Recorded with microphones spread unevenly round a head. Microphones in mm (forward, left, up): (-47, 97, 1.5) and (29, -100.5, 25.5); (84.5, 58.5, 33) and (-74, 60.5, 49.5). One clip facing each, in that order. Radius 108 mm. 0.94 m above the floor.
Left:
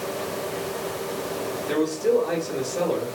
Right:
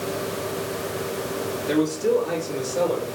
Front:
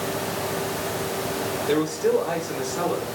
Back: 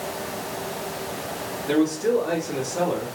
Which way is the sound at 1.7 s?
140° right.